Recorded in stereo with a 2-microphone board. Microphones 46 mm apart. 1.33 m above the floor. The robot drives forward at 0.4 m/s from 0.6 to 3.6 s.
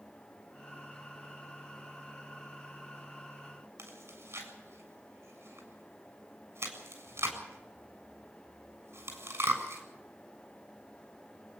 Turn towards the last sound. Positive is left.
turn(degrees=-90)